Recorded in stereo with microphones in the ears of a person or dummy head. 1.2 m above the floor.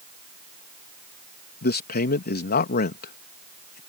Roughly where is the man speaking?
Left.